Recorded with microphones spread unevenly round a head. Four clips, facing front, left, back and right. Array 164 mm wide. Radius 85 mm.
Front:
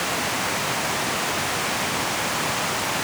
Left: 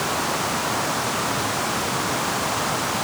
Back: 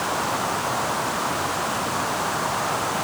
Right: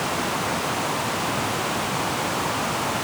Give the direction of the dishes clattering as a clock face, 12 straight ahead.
No dishes clattering in this recording.